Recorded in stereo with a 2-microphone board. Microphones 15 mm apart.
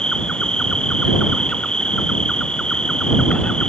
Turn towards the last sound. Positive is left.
turn(degrees=75)  # may be behind; listen again after turning